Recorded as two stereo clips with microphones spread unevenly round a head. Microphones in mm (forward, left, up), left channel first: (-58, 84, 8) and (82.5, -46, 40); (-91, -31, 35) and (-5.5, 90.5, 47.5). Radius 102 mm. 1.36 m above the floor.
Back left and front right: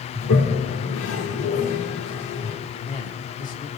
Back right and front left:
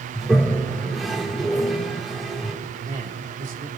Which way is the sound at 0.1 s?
145° left.